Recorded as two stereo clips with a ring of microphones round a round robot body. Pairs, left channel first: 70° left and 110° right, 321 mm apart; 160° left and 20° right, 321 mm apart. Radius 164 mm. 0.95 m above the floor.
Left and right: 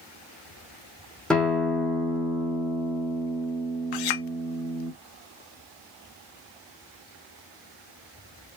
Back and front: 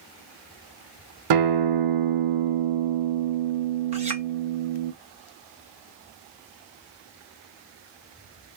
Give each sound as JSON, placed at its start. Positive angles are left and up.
{"t": 1.3, "sound": "a guitar", "azimuth_deg": -20, "distance_m": 0.7}
{"t": 3.9, "sound": "a clink", "azimuth_deg": 50, "distance_m": 0.7}